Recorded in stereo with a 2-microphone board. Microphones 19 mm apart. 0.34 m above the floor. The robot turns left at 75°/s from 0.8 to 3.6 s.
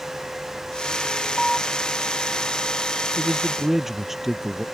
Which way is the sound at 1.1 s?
65° left.